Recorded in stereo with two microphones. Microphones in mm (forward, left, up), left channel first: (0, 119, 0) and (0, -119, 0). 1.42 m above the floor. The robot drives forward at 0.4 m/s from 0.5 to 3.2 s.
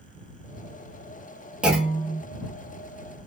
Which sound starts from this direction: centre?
A clunk, at 1.6 s.